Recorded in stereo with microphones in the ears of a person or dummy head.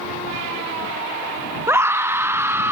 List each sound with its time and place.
1.7 s a scream: 20° right (ahead or behind)